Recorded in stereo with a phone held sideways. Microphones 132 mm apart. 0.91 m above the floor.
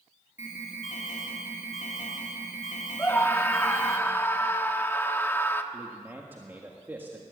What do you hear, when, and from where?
0.4 s an alarm: 70° left (ahead or behind), 3 m
3.0 s a scream: 15° left (ahead or behind), 1.4 m
5.7 s a man speaking: 15° right (ahead or behind), 1.7 m